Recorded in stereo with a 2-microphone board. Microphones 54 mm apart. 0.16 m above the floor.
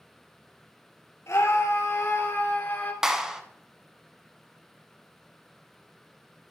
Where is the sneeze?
No sneeze in this recording.